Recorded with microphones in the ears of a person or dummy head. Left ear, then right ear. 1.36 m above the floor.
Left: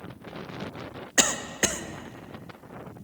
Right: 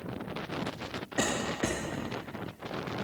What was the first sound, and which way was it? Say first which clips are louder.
A cough: left 6 dB; 55° left (ahead or behind).